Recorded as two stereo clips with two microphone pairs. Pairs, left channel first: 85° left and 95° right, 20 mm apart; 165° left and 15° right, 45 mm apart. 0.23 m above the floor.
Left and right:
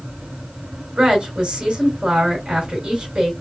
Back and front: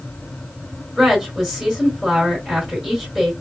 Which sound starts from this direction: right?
A woman speaking, at 1.0 s.